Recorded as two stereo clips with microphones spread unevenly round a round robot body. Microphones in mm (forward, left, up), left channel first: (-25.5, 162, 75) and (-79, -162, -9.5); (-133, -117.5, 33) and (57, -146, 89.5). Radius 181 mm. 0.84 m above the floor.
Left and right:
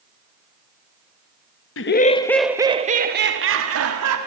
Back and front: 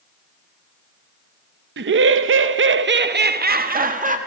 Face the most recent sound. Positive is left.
turn(degrees=-65)